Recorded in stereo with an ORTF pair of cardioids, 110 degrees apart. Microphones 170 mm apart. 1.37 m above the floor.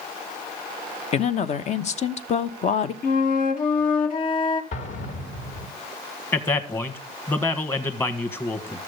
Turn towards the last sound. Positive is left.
turn(degrees=15)